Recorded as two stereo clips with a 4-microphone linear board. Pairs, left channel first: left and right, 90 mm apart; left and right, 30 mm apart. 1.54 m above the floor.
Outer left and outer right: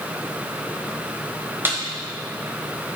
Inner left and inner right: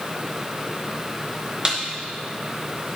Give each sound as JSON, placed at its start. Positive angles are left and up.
{"t": 1.6, "sound": "a snare drum", "side_deg": -25, "distance_m": 0.9}